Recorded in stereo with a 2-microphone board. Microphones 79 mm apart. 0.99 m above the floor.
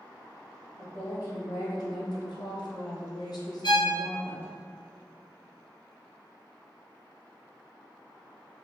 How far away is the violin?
About 0.7 m.